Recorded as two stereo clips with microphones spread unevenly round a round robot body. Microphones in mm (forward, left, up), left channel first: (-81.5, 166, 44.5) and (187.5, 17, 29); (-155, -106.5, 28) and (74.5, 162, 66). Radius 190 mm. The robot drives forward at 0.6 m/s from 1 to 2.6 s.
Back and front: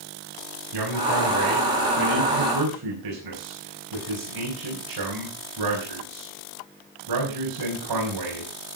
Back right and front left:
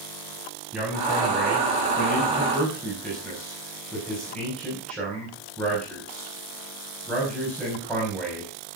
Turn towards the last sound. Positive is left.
turn(degrees=-45)